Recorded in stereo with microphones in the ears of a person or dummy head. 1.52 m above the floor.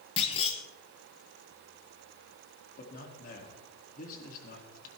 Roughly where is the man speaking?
Left.